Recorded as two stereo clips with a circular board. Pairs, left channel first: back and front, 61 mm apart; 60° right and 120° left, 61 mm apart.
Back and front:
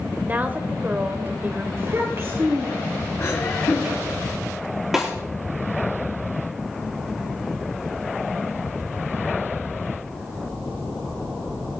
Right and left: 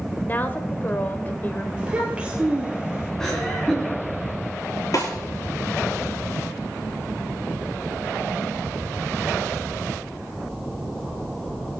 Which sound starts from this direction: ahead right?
A woman speaking, at 0.2 s.